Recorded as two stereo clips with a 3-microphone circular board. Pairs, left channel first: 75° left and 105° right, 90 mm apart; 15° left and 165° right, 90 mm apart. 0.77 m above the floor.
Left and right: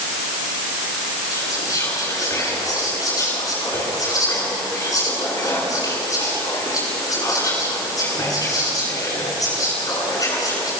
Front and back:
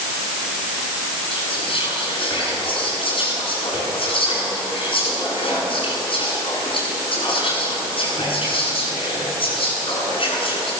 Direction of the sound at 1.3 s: 25° left.